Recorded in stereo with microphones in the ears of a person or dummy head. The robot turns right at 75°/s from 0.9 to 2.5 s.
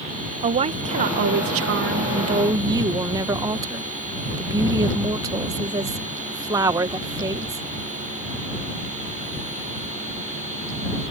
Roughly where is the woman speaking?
Behind right.